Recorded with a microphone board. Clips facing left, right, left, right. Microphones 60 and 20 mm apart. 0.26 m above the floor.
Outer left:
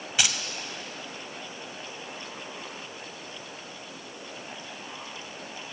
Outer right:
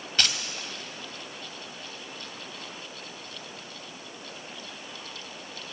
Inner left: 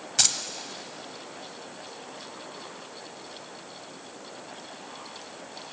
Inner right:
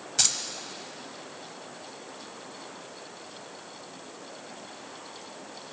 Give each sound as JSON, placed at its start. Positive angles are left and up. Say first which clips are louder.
{"t": 0.2, "sound": "keys jangling", "louder": "even, inner left 2 dB", "side_deg": 10, "distance_m": 0.8}